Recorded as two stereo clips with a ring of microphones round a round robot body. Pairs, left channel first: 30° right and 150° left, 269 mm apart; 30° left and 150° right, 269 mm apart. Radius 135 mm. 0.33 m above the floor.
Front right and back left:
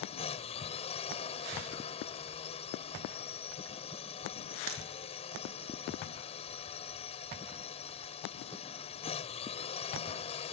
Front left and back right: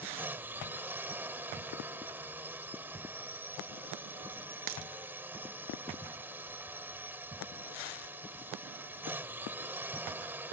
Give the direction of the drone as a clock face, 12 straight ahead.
2 o'clock.